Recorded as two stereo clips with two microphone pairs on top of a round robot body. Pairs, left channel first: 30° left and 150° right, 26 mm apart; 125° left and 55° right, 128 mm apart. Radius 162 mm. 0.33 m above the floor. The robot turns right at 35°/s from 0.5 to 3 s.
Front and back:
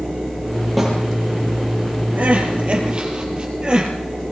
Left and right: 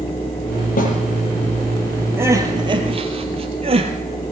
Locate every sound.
0.8 s a snare drum: 120° left, 6 m; by 0.9 s 125° left, 6 m
2.2 s crying: 130° right, 3.5 m; by 3.9 s 100° right, 3.5 m